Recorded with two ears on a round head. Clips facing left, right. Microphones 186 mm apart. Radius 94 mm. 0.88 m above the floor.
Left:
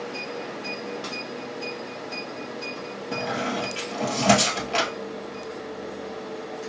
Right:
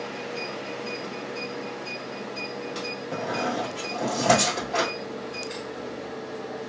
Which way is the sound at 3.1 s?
35° left (ahead or behind).